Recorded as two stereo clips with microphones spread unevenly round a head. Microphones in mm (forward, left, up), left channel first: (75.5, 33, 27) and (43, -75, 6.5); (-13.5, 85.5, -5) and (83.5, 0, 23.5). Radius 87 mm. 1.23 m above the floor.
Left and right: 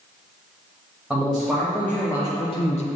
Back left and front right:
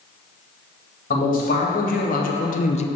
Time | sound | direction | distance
1.1 | a man speaking | 165° left | 1.8 m